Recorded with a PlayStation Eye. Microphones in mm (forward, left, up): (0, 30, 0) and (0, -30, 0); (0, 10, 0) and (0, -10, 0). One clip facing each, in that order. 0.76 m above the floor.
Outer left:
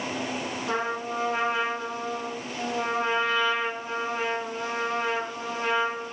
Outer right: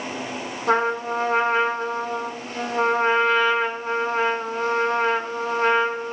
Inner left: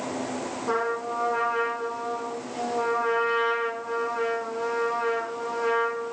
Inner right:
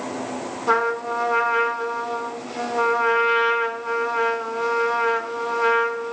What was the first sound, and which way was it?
A trumpet, 45° right (ahead or behind).